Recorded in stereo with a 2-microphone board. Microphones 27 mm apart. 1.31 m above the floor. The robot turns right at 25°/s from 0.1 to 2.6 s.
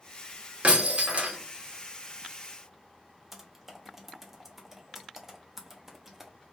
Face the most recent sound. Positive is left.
turn(degrees=-15)  # may be behind; listen again after turning